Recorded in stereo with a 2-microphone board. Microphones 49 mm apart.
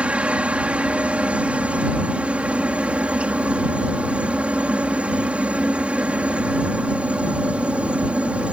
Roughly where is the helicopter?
Right.